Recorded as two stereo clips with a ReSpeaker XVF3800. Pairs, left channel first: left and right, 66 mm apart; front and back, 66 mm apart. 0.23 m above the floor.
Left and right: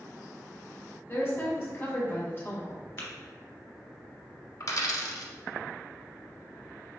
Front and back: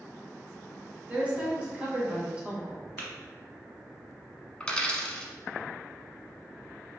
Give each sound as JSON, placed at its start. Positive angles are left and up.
{"t": 1.1, "sound": "a woman speaking", "azimuth_deg": 120, "distance_m": 1.8}
{"t": 3.0, "sound": "tapping", "azimuth_deg": 55, "distance_m": 1.2}
{"t": 4.6, "sound": "a dropped coin", "azimuth_deg": 70, "distance_m": 0.7}